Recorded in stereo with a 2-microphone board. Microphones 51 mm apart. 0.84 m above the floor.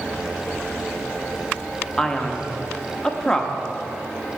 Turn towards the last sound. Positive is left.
turn(degrees=15)  # may be behind; listen again after turning